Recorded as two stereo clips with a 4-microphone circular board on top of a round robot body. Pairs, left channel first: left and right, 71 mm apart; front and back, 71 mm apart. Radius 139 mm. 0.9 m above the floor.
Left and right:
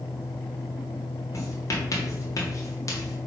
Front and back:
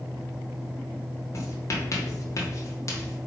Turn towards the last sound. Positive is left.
turn(degrees=45)